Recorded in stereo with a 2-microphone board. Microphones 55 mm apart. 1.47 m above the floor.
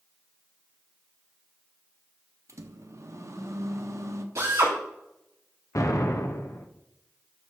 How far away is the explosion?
About 0.9 m.